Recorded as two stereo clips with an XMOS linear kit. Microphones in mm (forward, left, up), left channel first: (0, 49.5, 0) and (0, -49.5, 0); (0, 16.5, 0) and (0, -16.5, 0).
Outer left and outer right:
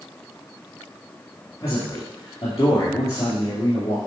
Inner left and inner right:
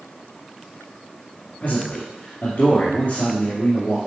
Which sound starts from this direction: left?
A man speaking, at 1.6 s.